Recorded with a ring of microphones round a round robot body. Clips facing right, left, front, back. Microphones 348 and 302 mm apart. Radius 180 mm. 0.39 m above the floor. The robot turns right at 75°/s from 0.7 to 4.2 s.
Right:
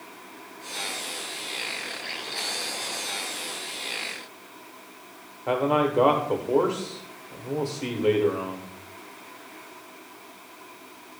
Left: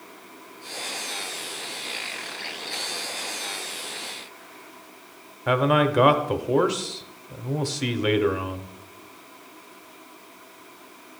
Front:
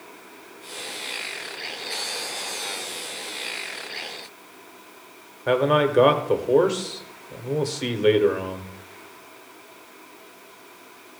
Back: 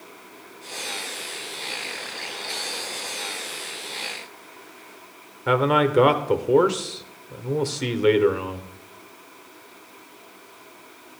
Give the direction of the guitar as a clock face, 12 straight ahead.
I don't hear a guitar.